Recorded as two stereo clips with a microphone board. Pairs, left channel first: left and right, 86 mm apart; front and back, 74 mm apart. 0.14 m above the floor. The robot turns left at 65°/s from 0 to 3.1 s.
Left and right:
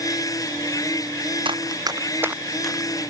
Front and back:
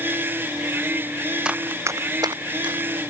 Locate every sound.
1.4 s running footsteps: 100° right; by 3.0 s 155° left